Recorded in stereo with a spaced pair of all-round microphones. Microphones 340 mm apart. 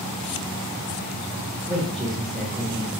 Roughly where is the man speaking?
Centre.